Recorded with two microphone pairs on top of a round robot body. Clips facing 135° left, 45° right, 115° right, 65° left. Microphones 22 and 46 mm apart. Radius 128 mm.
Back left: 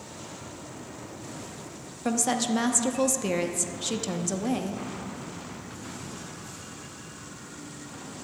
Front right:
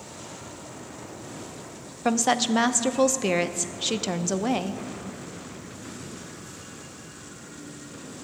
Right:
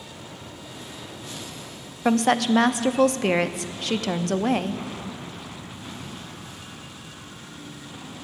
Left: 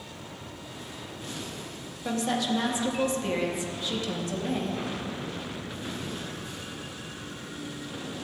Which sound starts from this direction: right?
A woman speaking, at 2.0 s.